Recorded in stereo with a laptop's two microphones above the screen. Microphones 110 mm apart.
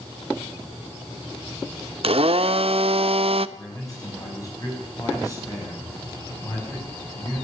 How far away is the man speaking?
About 5.5 m.